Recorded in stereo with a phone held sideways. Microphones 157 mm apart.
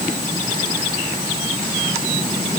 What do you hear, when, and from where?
Only background noise.